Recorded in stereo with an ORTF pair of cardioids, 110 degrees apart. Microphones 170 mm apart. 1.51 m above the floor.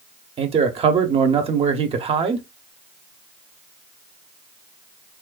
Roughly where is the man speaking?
Ahead right.